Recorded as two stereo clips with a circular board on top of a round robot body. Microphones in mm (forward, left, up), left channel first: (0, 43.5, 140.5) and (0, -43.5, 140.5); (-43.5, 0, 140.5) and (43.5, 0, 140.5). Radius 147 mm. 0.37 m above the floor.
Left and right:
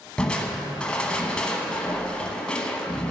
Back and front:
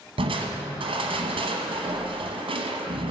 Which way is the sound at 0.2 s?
10° left.